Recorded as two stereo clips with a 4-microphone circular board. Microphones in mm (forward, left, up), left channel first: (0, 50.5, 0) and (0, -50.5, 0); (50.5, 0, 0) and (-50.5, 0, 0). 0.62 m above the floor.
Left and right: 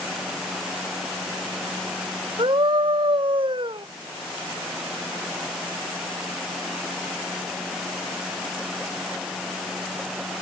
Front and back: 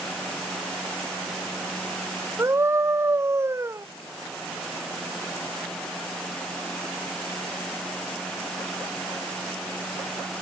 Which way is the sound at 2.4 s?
120° right.